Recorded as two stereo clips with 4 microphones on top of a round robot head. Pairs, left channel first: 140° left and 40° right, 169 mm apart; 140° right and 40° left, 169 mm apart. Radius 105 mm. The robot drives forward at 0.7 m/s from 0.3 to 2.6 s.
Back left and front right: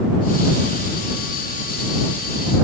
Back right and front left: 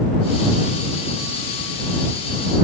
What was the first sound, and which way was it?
Only background noise.